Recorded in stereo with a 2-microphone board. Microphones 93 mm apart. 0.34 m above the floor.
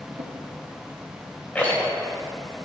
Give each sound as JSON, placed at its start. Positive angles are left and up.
{"t": 0.1, "sound": "a drawer", "side_deg": -65, "distance_m": 2.0}
{"t": 1.6, "sound": "a rattle", "side_deg": 20, "distance_m": 1.9}